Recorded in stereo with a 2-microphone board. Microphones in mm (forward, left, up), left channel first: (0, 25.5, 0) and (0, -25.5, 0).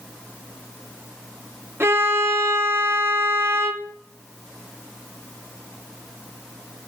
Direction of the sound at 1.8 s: 50° right (ahead or behind).